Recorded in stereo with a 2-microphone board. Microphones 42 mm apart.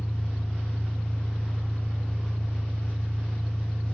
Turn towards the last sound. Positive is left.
turn(degrees=30)  # may be behind; listen again after turning